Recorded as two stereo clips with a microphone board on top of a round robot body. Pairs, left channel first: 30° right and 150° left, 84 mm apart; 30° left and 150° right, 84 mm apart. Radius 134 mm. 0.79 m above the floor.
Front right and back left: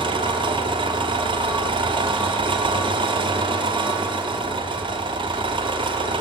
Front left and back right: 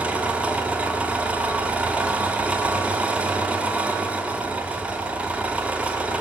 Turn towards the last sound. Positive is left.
turn(degrees=135)